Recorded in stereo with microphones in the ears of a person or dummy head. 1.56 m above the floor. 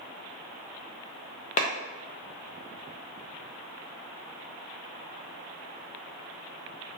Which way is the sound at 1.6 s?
35° left (ahead or behind).